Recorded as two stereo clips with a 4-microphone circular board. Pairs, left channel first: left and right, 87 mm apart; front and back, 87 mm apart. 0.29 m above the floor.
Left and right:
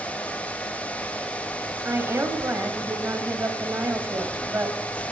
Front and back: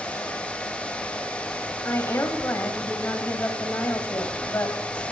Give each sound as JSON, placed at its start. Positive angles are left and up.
{"t": 1.9, "sound": "a woman speaking", "azimuth_deg": -45, "distance_m": 1.3}